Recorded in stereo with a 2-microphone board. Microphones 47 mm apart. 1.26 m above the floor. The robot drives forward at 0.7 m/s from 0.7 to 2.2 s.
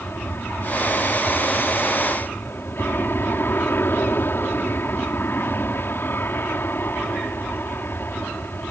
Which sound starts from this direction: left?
An aircraft, at 0.0 s.